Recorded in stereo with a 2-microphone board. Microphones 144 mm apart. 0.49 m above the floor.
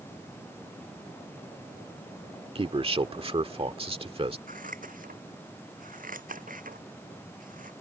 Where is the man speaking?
40° right (ahead or behind).